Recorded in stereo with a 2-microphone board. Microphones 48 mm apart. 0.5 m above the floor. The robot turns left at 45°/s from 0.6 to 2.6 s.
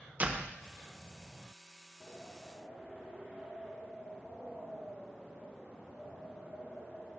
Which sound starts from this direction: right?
A door slam, at 0.2 s.